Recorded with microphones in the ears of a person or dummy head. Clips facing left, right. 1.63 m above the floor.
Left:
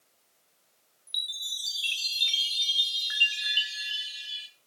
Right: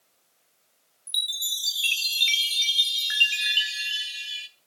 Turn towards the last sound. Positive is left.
turn(degrees=-30)  # may be behind; listen again after turning